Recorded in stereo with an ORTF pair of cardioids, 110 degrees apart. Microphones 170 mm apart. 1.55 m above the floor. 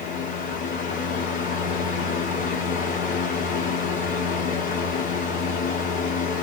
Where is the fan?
55° left, 1.2 m.